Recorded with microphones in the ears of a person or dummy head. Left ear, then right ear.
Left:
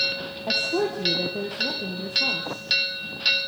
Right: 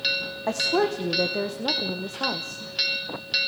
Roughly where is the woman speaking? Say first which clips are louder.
Right 1 dB; right.